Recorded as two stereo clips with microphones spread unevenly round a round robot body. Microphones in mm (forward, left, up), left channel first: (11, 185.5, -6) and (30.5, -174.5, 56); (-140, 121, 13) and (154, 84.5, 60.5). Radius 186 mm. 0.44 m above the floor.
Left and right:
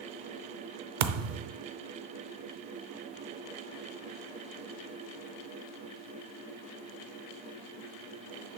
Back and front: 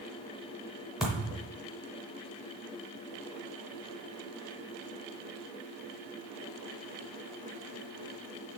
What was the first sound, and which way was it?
A thud, 100° right.